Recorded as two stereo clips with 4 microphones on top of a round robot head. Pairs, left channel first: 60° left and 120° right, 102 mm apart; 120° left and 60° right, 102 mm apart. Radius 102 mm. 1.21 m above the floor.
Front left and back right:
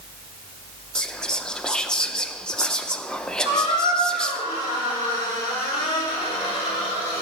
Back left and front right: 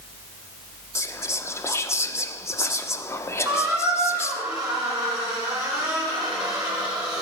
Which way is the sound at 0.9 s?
130° left.